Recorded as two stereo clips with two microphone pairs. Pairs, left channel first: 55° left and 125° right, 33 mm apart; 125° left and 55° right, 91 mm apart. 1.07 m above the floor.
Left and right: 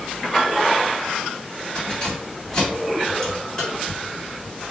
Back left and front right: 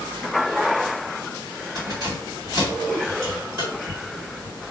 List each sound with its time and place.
1.8 s keys jangling: 15° right, 1.9 m